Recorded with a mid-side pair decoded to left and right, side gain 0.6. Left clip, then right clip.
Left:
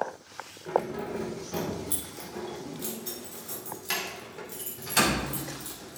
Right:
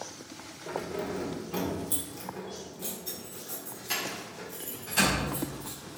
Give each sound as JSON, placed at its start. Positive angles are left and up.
{"t": 0.7, "sound": "keys jangling", "azimuth_deg": 0, "distance_m": 4.0}